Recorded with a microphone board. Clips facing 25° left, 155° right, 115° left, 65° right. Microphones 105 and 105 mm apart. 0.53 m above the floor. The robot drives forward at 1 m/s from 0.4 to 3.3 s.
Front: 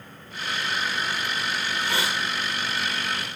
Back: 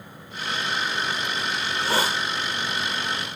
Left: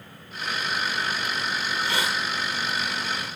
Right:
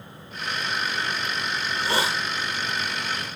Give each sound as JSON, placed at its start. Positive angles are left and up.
{"t": 1.6, "sound": "a hiss", "azimuth_deg": -100, "distance_m": 1.4}